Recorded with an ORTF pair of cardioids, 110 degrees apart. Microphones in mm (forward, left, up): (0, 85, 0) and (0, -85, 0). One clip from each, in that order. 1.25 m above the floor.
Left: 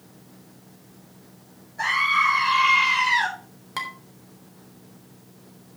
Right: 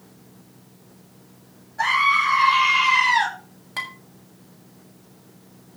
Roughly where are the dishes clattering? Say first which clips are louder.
Right 1 dB; ahead.